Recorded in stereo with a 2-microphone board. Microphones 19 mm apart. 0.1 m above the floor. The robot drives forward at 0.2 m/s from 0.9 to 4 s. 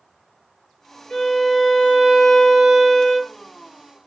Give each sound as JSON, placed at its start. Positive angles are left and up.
{"t": 1.1, "sound": "a violin", "side_deg": 20, "distance_m": 1.5}